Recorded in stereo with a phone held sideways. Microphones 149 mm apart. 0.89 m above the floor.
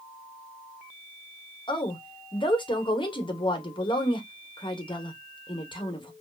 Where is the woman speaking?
35° left (ahead or behind), 0.7 m.